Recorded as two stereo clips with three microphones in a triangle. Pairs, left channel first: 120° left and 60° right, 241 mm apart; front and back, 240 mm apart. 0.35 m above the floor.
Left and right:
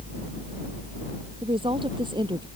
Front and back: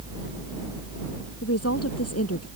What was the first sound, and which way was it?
A woman speaking, 10° left.